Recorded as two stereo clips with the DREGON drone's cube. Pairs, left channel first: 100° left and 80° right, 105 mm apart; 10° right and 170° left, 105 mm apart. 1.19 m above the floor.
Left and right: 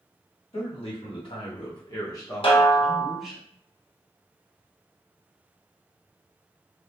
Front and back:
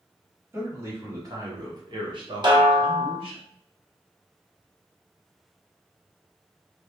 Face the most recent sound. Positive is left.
turn(degrees=130)